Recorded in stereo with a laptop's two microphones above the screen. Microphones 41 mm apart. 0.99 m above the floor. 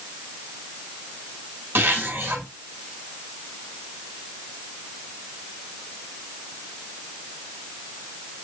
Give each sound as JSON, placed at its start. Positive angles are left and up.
{"t": 1.8, "sound": "a zipper", "side_deg": -60, "distance_m": 5.0}